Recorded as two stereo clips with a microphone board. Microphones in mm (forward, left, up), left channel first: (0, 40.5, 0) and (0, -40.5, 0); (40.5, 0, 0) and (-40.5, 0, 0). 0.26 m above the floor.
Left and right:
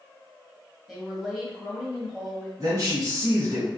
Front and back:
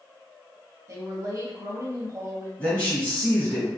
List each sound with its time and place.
0.9 s a woman speaking: 175° right, 1.4 m
2.6 s a man speaking: 70° right, 1.4 m